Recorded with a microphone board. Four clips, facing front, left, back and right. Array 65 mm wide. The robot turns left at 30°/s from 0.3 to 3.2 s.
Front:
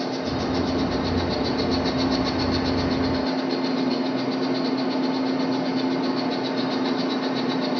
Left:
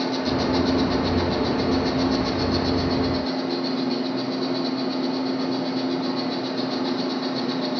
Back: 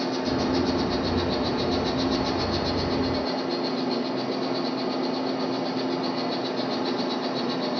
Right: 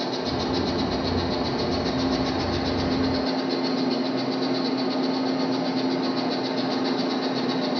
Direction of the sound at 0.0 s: 85° left.